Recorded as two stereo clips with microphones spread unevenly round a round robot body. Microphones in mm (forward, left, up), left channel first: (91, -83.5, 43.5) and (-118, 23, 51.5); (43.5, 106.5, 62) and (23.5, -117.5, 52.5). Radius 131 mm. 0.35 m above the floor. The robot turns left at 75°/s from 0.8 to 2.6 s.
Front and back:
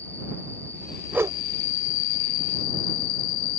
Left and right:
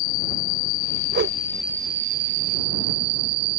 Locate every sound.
0.0 s an insect: 55° left; by 3.6 s 80° right
1.1 s a whoosh: 120° right; by 1.4 s 140° right